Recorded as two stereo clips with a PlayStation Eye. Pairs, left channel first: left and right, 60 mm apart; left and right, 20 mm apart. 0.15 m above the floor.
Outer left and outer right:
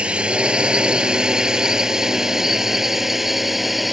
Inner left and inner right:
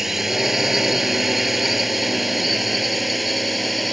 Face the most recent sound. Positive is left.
turn(degrees=0)  # may be behind; listen again after turning